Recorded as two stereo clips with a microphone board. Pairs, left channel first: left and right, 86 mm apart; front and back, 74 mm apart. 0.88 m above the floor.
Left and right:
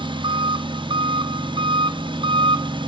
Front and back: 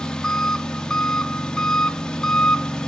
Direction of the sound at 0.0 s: 80° right.